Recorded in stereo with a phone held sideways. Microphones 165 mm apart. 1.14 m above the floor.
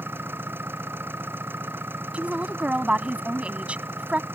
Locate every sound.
0.0 s an engine running: 15° right (ahead or behind)
2.1 s a woman speaking: 10° right (ahead or behind)